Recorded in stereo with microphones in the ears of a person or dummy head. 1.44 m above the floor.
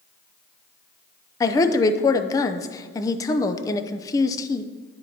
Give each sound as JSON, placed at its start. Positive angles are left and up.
{"t": 1.4, "sound": "a woman speaking", "side_deg": 20, "distance_m": 0.5}